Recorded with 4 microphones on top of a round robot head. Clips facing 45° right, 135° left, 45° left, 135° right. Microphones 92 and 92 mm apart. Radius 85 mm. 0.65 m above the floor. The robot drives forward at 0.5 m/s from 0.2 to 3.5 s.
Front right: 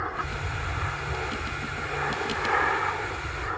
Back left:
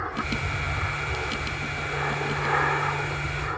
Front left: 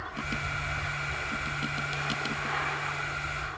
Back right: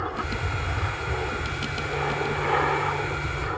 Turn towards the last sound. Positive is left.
turn(degrees=-140)